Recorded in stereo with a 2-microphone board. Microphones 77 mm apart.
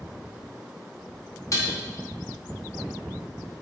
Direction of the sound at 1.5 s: 40° left (ahead or behind).